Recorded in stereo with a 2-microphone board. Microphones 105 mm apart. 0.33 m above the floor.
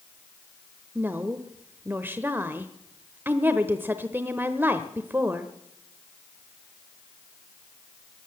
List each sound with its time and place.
0.9 s a woman speaking: 20° right (ahead or behind), 0.8 m